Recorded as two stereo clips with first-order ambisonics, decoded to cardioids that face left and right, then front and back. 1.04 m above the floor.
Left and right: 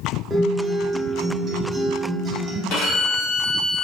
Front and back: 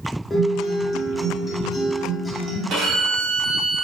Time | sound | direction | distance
0.3 | a guitar | 35° right | 0.5 m
2.7 | a violin | 120° left | 1.0 m